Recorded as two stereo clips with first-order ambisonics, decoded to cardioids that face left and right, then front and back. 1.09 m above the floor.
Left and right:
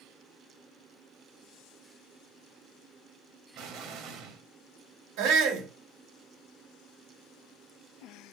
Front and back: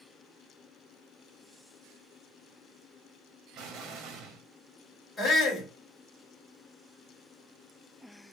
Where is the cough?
No cough in this recording.